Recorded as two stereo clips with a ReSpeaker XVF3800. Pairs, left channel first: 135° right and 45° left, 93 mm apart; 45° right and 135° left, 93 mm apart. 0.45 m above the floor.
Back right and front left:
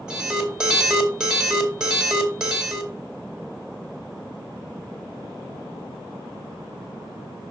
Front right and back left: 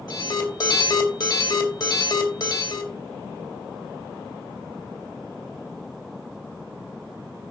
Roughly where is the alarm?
Ahead right.